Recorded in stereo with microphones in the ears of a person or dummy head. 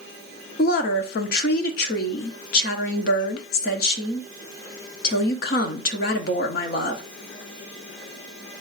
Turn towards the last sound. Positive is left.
turn(degrees=50)  # may be behind; listen again after turning